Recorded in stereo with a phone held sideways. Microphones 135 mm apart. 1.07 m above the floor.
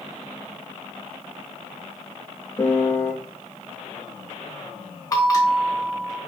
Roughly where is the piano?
Centre.